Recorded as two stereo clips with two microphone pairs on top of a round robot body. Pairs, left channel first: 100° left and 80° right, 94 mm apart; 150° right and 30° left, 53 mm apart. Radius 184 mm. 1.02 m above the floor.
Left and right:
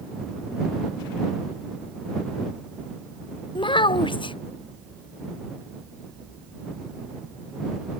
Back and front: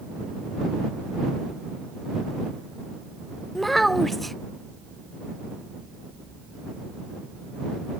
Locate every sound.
3.5 s a child speaking: 120° left